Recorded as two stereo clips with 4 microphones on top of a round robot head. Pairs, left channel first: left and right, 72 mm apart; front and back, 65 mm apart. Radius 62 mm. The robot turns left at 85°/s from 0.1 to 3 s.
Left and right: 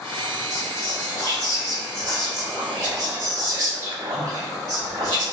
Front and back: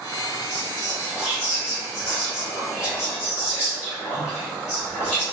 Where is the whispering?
160° left, 1.9 m; by 5.2 s 50° right, 1.9 m.